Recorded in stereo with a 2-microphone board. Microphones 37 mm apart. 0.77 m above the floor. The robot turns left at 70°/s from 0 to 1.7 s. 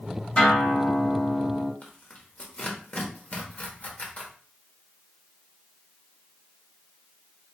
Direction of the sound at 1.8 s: 40° left (ahead or behind).